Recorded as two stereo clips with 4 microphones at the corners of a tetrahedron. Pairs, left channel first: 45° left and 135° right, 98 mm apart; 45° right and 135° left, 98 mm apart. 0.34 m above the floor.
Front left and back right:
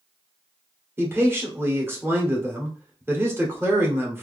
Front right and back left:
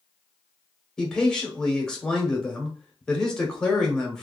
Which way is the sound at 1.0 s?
115° right.